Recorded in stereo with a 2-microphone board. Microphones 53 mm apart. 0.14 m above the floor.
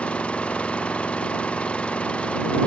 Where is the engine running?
20° left (ahead or behind).